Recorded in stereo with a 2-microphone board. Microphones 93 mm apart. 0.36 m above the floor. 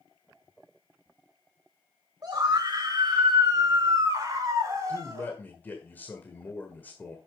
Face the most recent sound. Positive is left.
turn(degrees=20)  # may be behind; listen again after turning